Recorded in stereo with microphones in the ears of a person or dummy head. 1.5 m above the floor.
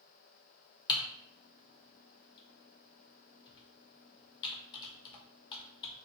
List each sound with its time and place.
0.9 s typing on a keyboard: 30° left (ahead or behind), 0.7 m